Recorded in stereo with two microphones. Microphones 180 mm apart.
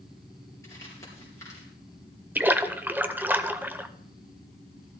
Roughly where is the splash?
Centre.